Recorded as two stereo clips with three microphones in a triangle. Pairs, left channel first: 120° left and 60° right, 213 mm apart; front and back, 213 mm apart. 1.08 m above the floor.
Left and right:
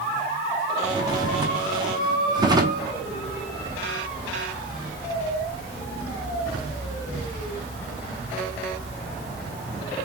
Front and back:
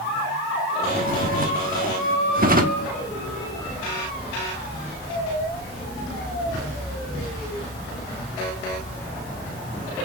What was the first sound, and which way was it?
A drawer, 130° right.